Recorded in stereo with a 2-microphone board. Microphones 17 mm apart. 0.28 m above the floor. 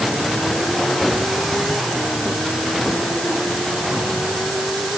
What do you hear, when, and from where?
Only background noise.